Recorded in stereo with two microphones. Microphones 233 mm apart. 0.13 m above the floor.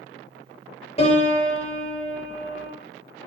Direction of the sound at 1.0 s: 25° left (ahead or behind).